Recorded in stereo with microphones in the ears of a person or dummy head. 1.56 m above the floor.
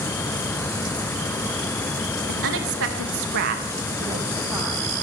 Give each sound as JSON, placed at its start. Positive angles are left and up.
{"t": 2.3, "sound": "a woman speaking", "side_deg": -70, "distance_m": 1.2}